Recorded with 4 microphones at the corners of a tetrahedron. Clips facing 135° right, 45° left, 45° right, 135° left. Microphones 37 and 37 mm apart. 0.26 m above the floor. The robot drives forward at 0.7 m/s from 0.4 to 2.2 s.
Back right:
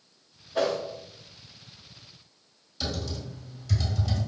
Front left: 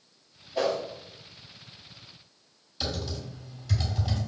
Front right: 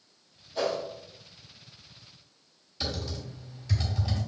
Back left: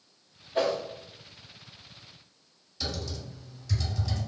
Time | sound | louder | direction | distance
0.6 | a whoosh | back right 1 dB, back left 2 dB | straight behind | 1.6 m
2.8 | typing on a keyboard | even, front right 1 dB | 25° right | 1.8 m